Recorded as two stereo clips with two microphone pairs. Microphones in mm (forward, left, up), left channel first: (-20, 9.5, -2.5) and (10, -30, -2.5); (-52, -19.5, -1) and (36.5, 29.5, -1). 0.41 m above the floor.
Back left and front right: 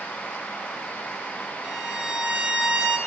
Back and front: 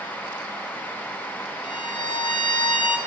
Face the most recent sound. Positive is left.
turn(degrees=-125)